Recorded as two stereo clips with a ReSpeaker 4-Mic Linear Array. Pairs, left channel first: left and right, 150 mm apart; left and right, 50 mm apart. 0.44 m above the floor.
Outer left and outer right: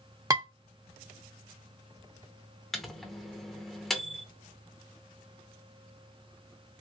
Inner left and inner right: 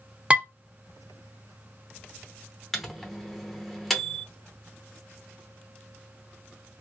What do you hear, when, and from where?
0.3 s dishes clattering: 20° right (ahead or behind), 0.9 m
2.7 s a microwave: centre (ahead or behind), 0.7 m